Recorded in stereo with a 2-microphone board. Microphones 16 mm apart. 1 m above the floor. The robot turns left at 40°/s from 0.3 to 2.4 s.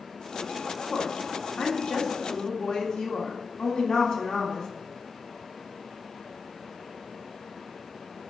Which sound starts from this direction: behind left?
A woman speaking, at 0.9 s.